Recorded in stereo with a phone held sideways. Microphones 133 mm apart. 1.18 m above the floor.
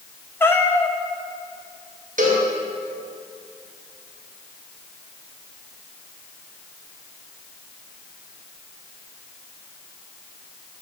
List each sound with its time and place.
0.4 s a cat meowing: 15° left (ahead or behind), 0.7 m
2.2 s a cowbell: 75° right (ahead or behind), 1.4 m